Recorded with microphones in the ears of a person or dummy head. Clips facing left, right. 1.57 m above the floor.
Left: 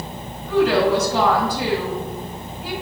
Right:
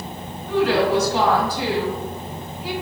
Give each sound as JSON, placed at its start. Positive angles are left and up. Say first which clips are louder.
{"t": 0.5, "sound": "a woman speaking", "louder": "left 2 dB", "side_deg": 80, "distance_m": 1.8}